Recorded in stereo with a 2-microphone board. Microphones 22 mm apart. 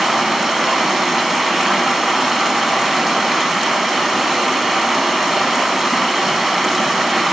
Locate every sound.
0.0 s running water: 10° right (ahead or behind), 0.8 m